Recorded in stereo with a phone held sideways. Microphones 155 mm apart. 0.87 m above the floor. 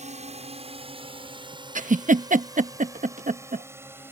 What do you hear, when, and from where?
0.0 s a drone: 45° right (ahead or behind); by 4.1 s 15° right (ahead or behind)
1.8 s a giggle: 55° right (ahead or behind)